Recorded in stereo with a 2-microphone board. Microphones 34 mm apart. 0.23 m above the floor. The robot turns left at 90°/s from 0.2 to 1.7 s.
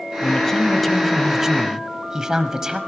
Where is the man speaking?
20° left (ahead or behind), 1.3 m; by 2.8 s 20° right (ahead or behind), 1.3 m.